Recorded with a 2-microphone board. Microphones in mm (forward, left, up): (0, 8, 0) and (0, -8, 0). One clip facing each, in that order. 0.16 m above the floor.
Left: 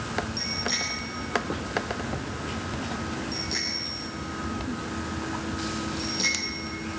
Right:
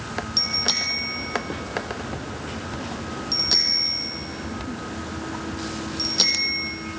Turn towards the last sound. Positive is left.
turn(degrees=-50)  # may be behind; listen again after turning